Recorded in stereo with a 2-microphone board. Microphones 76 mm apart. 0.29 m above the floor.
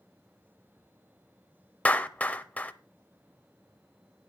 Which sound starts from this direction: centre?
A clap, at 1.9 s.